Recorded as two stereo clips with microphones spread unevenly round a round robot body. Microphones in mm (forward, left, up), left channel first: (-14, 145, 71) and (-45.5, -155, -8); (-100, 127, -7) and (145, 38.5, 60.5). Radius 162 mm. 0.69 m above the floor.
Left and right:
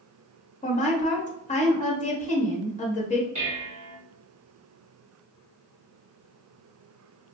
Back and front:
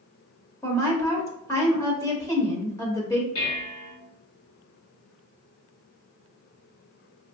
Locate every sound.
0.6 s a woman speaking: 150° left, 1.1 m
3.4 s dishes clattering: 160° right, 1.5 m